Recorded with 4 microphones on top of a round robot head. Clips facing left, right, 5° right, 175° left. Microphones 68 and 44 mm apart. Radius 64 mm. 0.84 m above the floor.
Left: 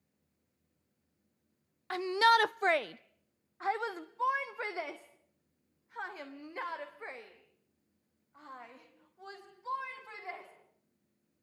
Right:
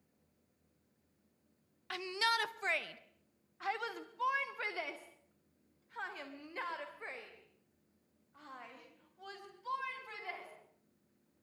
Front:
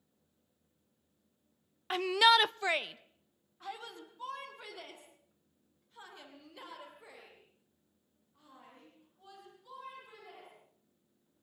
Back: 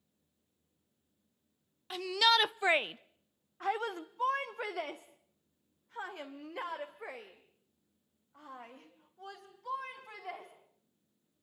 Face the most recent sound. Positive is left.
turn(degrees=165)